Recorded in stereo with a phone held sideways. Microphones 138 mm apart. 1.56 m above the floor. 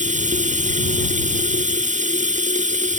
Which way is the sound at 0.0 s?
65° right (ahead or behind).